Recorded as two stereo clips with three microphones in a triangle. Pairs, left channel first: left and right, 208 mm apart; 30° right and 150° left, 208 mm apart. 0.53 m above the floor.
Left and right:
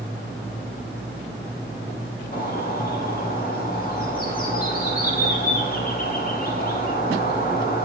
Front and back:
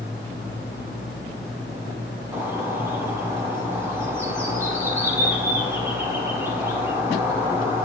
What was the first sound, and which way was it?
A bird, 80° left.